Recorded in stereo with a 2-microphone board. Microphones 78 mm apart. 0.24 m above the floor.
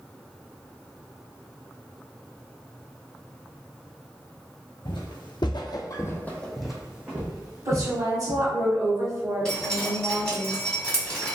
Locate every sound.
4.8 s footsteps: 70° left (ahead or behind), 1.0 m; by 8.4 s 30° right (ahead or behind), 2 m
7.7 s a woman speaking: 35° right (ahead or behind), 1.3 m
9.4 s dripping: 10° left (ahead or behind), 1.7 m